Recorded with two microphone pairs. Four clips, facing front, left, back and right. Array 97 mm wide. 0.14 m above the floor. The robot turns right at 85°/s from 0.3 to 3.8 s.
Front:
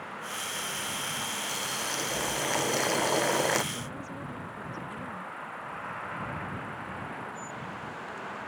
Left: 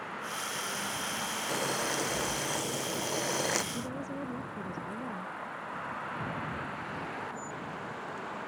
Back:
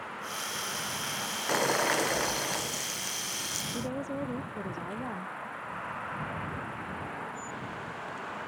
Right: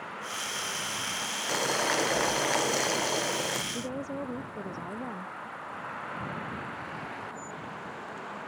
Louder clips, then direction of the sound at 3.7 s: Right 3 dB, back 5 dB; 135° right.